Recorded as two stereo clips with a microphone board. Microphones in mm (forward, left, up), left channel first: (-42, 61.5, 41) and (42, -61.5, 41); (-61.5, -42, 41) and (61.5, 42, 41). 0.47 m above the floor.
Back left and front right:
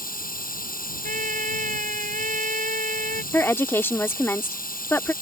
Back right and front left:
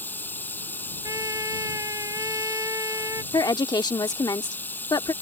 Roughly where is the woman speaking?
Behind.